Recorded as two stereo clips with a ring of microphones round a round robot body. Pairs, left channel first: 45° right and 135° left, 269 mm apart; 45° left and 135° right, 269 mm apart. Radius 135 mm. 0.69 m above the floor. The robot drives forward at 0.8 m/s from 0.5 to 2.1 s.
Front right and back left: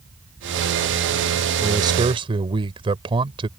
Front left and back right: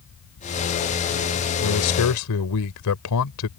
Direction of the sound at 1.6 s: 60° left.